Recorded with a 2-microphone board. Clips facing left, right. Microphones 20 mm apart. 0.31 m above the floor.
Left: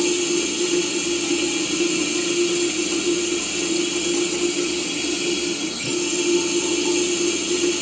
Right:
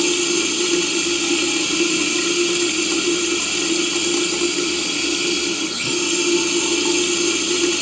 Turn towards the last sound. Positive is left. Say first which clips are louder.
# right 2 dB
turn(degrees=-45)  # may be behind; listen again after turning